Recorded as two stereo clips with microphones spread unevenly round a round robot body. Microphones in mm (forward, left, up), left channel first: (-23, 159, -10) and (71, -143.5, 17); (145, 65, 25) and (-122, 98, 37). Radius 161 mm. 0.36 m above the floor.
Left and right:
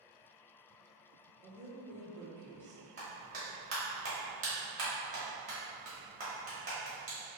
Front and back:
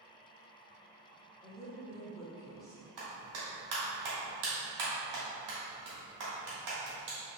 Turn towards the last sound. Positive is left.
turn(degrees=-140)